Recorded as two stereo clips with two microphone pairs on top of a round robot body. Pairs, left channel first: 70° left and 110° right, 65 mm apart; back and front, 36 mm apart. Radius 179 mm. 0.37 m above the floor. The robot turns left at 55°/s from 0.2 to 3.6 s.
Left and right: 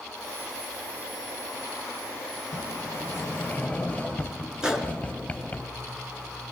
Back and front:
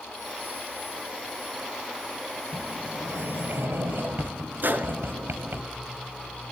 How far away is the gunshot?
About 2.5 m.